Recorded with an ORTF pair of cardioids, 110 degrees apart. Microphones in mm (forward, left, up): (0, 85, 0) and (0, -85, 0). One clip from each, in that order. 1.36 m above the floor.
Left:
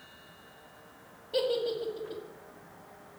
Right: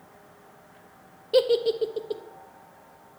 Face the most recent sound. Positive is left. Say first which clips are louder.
# right 8 dB
turn(degrees=-50)